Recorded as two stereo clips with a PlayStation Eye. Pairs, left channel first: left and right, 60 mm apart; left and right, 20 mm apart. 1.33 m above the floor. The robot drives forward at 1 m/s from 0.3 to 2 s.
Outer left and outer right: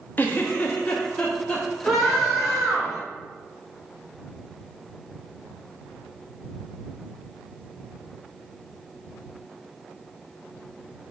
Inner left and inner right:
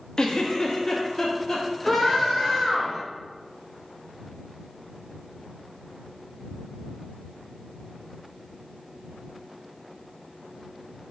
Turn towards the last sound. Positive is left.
turn(degrees=-5)  # may be behind; listen again after turning